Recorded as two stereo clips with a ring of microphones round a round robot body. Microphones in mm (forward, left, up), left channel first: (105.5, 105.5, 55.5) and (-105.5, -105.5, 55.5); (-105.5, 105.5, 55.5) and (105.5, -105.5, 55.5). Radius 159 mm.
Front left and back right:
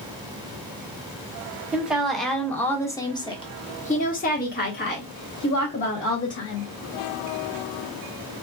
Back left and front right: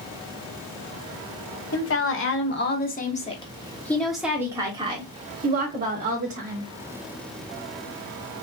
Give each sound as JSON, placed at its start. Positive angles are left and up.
{"t": 1.7, "sound": "a woman speaking", "azimuth_deg": 140, "distance_m": 1.6}